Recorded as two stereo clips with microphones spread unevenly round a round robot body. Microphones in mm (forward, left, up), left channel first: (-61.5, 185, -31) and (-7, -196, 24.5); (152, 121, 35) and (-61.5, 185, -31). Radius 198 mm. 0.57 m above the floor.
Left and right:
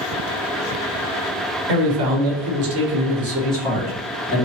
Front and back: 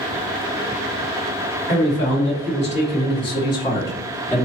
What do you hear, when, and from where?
1.7 s a man speaking: 90° right, 1.2 m; by 4.5 s 80° left, 1.0 m